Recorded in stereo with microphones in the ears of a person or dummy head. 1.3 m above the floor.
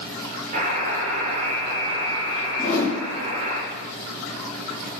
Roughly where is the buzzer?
Right.